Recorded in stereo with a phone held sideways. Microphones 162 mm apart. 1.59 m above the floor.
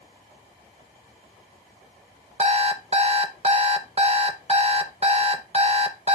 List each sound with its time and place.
2.4 s an alarm clock: 40° right (ahead or behind), 0.9 m